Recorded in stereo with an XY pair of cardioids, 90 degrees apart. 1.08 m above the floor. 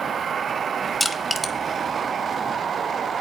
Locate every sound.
1.0 s crushing: 10° left, 1.0 m